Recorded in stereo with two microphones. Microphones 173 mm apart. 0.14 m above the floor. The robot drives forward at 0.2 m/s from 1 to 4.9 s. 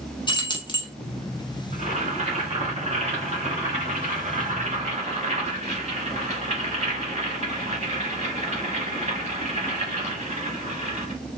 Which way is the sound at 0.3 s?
25° left (ahead or behind).